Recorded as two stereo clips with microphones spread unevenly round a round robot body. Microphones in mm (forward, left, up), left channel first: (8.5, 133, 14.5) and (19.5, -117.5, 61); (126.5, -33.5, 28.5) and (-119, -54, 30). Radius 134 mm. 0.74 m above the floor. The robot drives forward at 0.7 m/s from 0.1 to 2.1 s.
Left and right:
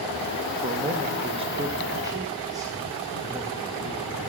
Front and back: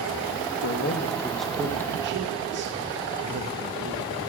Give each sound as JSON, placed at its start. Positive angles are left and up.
{"t": 0.6, "sound": "a man speaking", "azimuth_deg": -10, "distance_m": 0.8}